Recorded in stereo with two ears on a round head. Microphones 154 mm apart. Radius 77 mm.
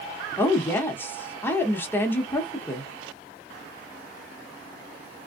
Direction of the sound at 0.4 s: 15° left (ahead or behind).